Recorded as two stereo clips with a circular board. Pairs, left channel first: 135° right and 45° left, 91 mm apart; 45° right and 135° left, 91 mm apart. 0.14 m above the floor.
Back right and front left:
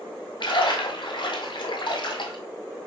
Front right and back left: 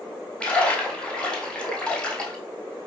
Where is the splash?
125° right, 1.2 m.